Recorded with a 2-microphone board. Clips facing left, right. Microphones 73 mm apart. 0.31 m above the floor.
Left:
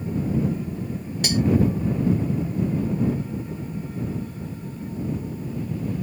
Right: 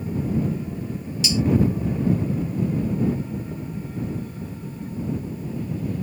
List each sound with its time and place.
1.2 s cutlery clinking: 50° left (ahead or behind)